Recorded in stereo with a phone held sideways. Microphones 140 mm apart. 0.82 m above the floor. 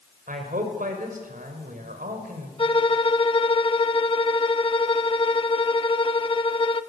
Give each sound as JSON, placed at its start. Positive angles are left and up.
{"t": 0.3, "sound": "a man speaking", "side_deg": -80, "distance_m": 4.0}
{"t": 2.6, "sound": "a violin", "side_deg": 40, "distance_m": 0.9}